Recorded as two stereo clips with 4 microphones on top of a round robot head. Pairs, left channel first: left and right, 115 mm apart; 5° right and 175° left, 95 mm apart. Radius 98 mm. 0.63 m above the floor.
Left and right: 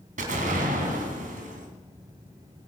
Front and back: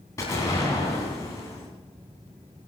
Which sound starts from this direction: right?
An explosion, at 0.2 s.